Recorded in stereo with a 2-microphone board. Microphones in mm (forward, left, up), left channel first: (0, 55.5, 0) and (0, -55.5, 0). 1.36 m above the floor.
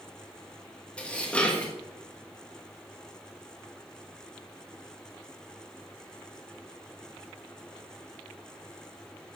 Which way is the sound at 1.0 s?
10° left (ahead or behind).